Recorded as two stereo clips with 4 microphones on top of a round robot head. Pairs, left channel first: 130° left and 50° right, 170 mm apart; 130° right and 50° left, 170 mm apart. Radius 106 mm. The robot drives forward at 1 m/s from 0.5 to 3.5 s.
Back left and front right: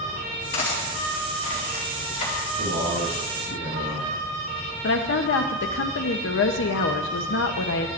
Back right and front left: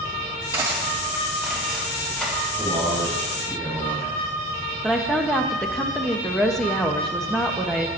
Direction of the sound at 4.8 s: 140° left.